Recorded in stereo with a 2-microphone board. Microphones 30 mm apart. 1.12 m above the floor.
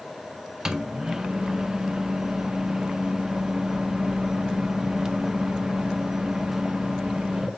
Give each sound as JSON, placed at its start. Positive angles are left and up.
{"t": 0.7, "sound": "a microwave", "side_deg": -20, "distance_m": 0.7}